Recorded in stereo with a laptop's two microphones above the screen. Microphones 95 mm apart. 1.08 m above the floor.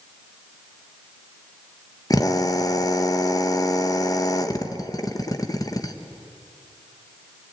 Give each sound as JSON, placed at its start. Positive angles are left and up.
{"t": 2.1, "sound": "a drill", "side_deg": 40, "distance_m": 0.9}